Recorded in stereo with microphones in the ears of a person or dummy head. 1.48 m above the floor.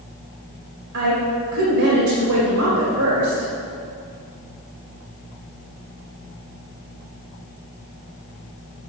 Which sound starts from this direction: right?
A woman speaking, at 0.9 s.